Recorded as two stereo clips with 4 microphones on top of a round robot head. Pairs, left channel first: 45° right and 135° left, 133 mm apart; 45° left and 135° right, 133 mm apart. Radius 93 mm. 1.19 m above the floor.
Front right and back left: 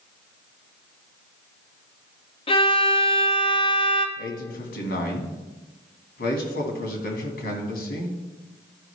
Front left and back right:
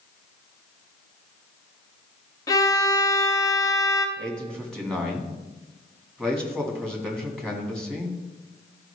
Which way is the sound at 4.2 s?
40° right.